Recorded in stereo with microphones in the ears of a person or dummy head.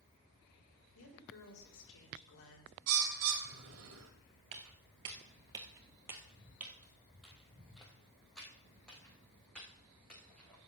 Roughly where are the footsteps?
Right.